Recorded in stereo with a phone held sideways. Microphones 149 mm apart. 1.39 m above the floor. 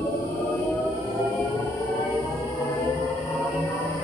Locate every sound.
0.0 s a machine running: 15° left (ahead or behind), 0.9 m